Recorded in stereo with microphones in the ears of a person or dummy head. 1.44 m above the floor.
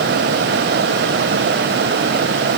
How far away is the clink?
No clink in this recording.